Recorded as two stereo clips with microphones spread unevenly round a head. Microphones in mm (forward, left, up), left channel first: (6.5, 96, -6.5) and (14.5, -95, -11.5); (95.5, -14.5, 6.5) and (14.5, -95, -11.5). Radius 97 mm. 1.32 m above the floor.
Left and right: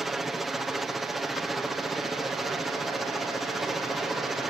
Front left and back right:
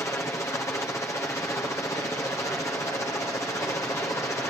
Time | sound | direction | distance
0.0 | a helicopter | straight ahead | ?